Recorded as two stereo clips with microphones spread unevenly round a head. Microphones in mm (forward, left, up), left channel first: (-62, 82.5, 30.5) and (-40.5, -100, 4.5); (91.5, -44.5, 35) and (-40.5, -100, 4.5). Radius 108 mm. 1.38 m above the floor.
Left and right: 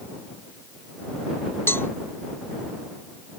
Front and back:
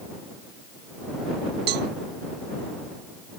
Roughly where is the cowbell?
Behind.